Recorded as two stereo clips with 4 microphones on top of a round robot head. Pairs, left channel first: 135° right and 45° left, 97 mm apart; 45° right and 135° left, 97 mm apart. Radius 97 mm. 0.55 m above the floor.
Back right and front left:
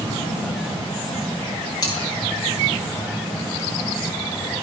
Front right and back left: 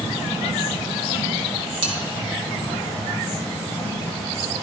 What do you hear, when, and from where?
1.8 s cutlery clinking: 170° left, 3 m